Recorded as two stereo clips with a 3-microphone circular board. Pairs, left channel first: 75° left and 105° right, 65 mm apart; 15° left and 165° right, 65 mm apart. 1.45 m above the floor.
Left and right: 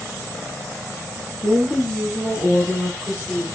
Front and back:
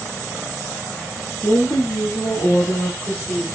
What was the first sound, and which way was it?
A woman speaking, 15° right.